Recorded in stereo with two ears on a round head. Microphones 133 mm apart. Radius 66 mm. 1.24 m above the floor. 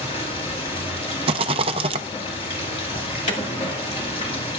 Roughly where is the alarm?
Left.